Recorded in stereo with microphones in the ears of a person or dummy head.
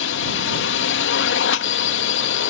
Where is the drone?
60° left (ahead or behind).